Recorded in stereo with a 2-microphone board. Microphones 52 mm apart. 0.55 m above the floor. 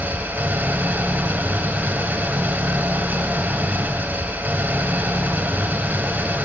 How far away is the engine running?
About 1.2 m.